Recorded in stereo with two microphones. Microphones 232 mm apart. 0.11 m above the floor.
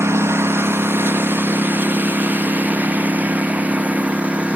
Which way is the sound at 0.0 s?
10° right (ahead or behind).